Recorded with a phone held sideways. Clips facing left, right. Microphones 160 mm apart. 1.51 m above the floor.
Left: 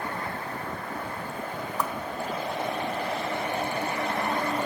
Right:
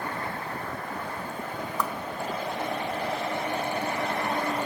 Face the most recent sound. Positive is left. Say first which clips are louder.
# even
turn(degrees=15)  # may be behind; listen again after turning